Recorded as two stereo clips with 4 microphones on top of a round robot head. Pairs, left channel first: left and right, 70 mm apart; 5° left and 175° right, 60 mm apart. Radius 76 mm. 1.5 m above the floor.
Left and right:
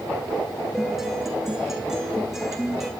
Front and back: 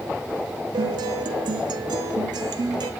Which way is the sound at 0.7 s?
175° right.